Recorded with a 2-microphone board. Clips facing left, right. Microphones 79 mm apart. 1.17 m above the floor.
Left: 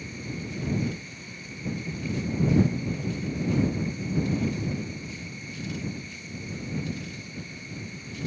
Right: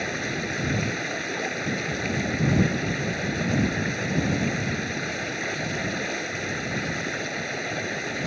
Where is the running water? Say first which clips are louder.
Right 8 dB; 80° right.